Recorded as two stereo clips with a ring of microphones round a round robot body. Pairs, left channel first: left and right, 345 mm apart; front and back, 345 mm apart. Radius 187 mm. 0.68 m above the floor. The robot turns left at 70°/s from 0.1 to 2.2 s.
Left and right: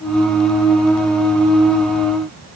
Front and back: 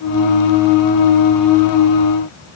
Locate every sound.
Only background noise.